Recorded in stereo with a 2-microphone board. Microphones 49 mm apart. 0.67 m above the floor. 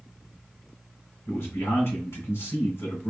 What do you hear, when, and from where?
1.3 s a man speaking: 70° left (ahead or behind), 2.5 m